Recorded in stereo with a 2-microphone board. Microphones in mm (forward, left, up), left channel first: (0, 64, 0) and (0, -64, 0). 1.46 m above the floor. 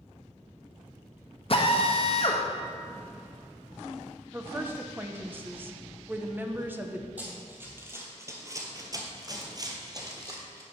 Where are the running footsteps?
15° right (ahead or behind), 2.5 m; by 10.6 s 25° right (ahead or behind), 2.5 m.